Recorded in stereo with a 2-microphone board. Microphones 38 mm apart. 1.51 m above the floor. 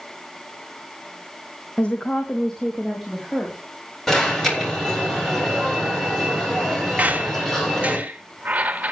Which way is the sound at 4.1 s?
10° left (ahead or behind).